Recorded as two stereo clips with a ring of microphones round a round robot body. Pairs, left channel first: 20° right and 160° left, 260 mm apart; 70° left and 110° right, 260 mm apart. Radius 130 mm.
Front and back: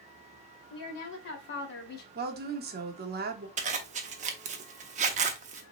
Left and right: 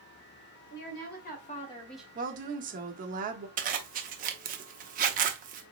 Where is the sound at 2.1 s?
160° right, 0.9 m.